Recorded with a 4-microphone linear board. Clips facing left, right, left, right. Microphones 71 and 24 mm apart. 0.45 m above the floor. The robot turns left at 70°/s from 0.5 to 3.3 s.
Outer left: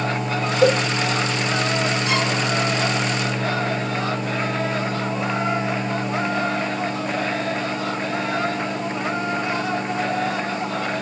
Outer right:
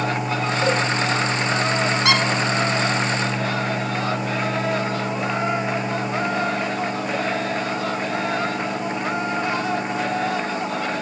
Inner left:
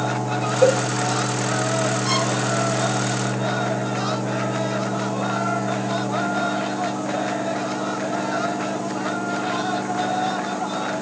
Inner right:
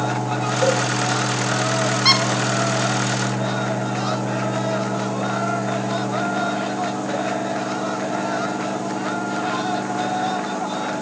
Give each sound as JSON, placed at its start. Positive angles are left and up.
{"t": 0.6, "sound": "a cowbell", "side_deg": 80, "distance_m": 1.1}
{"t": 2.0, "sound": "a squeak", "side_deg": -85, "distance_m": 3.0}